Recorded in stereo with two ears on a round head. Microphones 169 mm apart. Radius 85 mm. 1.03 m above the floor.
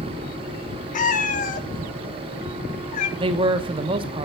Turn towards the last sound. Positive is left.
turn(degrees=-30)  # may be behind; listen again after turning